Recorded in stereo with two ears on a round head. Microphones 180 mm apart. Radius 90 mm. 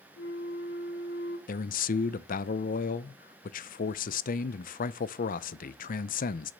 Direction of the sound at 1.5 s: 45° left (ahead or behind).